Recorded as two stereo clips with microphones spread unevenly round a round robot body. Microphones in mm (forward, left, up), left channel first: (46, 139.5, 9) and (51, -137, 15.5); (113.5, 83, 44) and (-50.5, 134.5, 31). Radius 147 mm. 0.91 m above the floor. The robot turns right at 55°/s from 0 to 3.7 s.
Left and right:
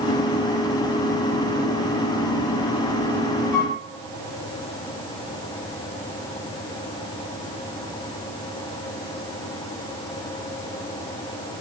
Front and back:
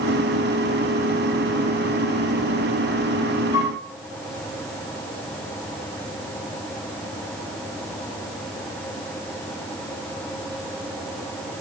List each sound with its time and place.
3.5 s a flute: 130° right, 4 m; by 3.8 s 125° right, 4 m